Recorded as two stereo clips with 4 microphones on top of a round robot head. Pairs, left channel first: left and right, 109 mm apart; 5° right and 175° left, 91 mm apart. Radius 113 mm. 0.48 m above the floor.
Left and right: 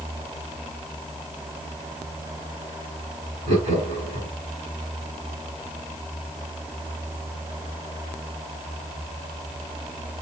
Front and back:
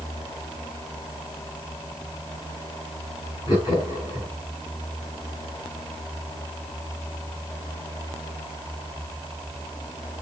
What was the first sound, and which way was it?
Laughter, 60° right.